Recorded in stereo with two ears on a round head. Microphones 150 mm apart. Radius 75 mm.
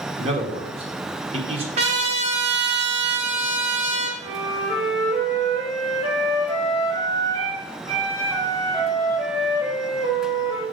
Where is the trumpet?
40° right (ahead or behind), 1.7 m.